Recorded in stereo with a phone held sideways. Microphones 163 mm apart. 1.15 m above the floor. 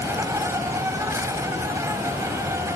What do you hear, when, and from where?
0.0 s an insect: 20° right (ahead or behind)